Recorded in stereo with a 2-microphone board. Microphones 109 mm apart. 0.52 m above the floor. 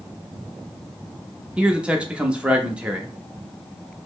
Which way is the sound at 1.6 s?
10° right (ahead or behind).